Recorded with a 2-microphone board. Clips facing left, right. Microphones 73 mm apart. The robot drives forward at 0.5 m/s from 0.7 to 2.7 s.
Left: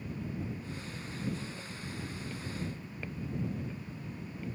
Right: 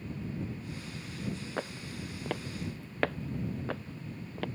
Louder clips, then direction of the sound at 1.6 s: Right 4 dB; 70° right (ahead or behind).